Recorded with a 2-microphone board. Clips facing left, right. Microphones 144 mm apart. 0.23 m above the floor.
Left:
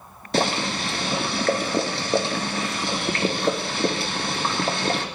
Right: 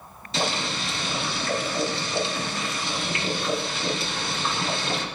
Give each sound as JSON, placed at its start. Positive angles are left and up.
{"t": 0.3, "sound": "boiling", "side_deg": 65, "distance_m": 3.5}